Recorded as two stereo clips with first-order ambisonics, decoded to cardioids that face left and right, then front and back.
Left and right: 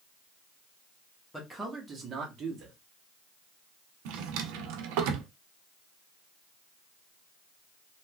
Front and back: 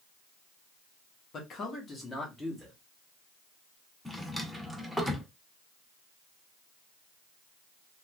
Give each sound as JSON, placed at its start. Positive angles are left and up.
{"t": 1.3, "sound": "a man speaking", "azimuth_deg": 5, "distance_m": 0.9}
{"t": 4.0, "sound": "a drawer", "azimuth_deg": -90, "distance_m": 0.6}